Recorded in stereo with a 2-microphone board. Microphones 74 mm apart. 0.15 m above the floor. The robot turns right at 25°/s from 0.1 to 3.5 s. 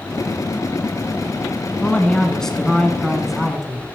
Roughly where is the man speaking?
Centre.